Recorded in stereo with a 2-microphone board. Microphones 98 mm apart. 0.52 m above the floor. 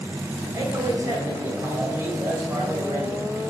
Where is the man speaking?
35° right (ahead or behind), 3 m.